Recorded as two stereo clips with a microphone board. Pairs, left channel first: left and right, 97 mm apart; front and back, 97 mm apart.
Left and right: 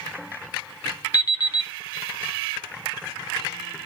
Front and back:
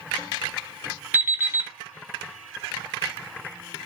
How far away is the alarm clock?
About 0.5 m.